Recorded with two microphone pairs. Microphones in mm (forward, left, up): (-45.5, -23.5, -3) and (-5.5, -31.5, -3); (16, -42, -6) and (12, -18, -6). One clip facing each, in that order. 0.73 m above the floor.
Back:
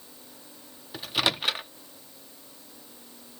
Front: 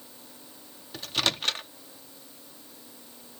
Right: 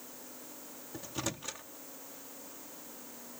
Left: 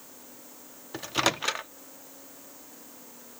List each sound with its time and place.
0.9 s a microwave: 95° left